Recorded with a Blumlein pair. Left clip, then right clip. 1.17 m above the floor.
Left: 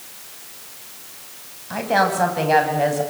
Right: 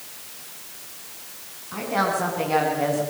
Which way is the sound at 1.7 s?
40° left.